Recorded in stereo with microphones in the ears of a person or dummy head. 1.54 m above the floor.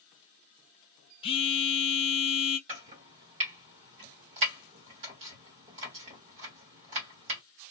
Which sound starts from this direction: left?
A phone buzzing, at 1.2 s.